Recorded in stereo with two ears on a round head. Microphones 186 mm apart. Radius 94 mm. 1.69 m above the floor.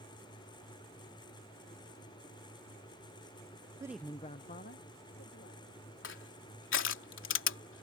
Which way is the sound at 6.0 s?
60° left (ahead or behind).